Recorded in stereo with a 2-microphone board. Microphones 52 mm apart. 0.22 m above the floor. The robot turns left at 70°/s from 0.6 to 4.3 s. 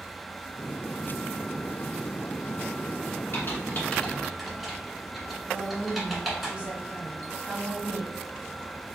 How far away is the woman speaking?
About 1.1 m.